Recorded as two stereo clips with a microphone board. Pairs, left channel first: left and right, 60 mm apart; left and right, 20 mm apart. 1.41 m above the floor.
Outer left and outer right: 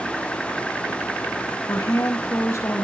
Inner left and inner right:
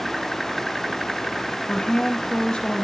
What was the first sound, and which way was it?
A woman speaking, 60° left (ahead or behind).